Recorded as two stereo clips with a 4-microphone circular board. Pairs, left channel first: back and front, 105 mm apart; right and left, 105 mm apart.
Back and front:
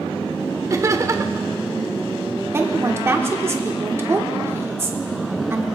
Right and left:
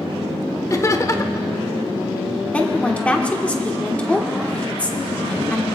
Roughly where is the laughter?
Ahead right.